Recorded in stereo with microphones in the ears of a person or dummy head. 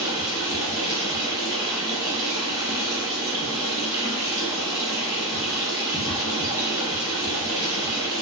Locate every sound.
0.0 s running water: 25° right (ahead or behind), 0.8 m